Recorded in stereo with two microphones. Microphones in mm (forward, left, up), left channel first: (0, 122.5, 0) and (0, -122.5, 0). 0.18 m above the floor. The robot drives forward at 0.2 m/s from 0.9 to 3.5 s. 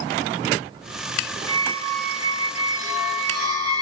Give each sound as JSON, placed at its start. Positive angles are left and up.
{"t": 1.5, "sound": "a squeak", "side_deg": -20, "distance_m": 0.9}